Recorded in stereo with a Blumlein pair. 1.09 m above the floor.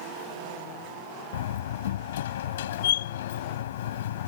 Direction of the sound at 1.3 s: 60° left.